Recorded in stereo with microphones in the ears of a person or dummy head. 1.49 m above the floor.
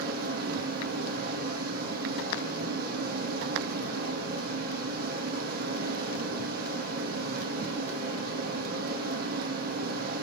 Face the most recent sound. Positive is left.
turn(degrees=-60)  # may be behind; listen again after turning